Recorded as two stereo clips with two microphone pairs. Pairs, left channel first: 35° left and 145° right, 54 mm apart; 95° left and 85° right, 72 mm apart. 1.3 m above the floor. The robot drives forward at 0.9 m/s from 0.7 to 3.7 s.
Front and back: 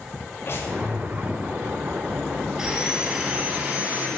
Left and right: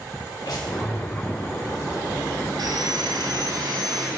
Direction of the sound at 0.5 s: 75° left.